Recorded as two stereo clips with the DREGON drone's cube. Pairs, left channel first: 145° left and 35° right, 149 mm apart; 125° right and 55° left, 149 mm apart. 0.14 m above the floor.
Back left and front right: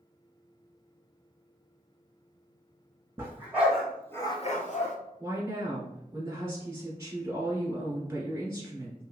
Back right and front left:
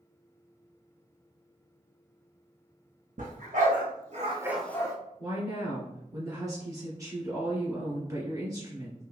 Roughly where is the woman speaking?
Ahead.